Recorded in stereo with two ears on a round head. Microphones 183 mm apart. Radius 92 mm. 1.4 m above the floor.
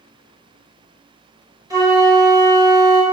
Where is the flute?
15° right (ahead or behind), 1.3 m.